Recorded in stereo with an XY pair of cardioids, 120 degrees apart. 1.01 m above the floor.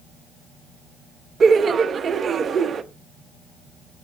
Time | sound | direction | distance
1.4 | laughter | 40° right | 0.9 m